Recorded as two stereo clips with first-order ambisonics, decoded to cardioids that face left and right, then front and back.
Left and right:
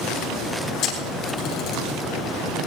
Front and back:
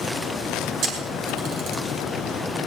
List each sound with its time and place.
0.8 s a camera shutter: 135° left, 4 m